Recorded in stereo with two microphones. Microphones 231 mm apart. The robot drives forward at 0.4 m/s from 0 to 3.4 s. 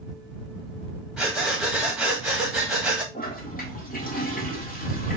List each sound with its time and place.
1.2 s breathing: centre (ahead or behind), 2 m; by 3.0 s 5° right (ahead or behind), 1.3 m
3.1 s a toilet flushing: 45° left (ahead or behind), 1.3 m; by 5.2 s 40° left (ahead or behind), 1.4 m